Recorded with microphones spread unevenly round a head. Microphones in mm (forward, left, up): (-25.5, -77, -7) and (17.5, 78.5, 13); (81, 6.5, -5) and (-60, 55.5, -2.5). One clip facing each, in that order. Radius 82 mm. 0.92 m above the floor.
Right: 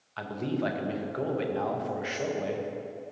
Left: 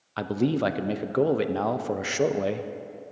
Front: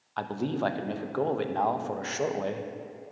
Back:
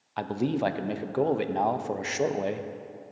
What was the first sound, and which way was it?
A man speaking, 90° left.